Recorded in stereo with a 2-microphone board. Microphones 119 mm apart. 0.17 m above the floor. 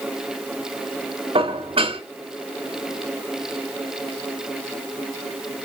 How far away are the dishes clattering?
About 1.4 m.